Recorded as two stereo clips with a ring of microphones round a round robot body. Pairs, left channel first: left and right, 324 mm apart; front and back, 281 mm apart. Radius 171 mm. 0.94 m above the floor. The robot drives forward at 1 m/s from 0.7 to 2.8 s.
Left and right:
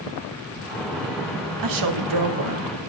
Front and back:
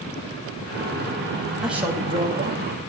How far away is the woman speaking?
About 2.0 m.